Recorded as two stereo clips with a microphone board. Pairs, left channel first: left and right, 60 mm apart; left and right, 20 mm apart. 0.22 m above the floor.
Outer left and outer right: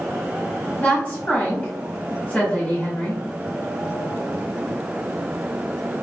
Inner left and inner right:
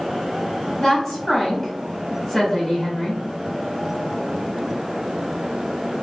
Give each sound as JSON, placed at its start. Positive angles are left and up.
{"t": 0.8, "sound": "a woman speaking", "side_deg": 25, "distance_m": 1.5}